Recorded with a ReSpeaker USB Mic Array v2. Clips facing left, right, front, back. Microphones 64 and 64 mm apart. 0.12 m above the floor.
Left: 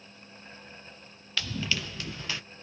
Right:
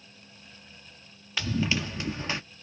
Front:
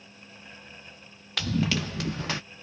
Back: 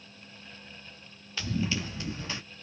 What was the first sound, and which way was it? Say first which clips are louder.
Running footsteps: right 4 dB, front 4 dB; 20° right.